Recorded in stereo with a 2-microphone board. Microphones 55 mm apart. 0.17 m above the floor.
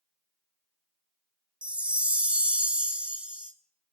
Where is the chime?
20° right (ahead or behind), 0.7 m.